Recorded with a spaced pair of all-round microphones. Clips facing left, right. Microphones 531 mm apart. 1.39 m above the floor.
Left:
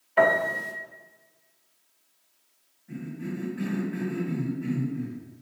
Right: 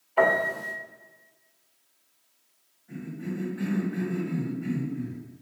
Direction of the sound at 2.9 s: 40° left (ahead or behind).